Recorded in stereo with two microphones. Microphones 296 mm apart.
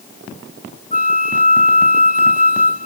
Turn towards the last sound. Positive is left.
turn(degrees=25)  # may be behind; listen again after turning